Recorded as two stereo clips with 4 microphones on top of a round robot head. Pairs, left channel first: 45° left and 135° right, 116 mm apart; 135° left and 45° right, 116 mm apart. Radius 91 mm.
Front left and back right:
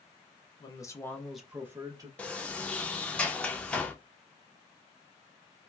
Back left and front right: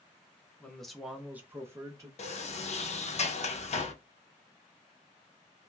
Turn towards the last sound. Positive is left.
turn(degrees=125)